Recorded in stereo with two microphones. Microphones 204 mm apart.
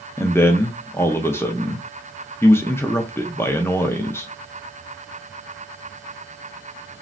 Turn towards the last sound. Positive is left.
turn(degrees=10)  # may be behind; listen again after turning